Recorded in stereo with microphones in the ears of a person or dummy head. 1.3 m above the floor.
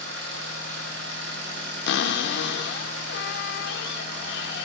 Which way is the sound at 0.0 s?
70° right (ahead or behind).